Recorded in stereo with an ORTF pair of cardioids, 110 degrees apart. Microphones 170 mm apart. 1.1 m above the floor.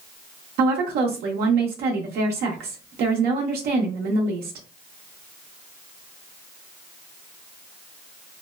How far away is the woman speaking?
About 0.8 m.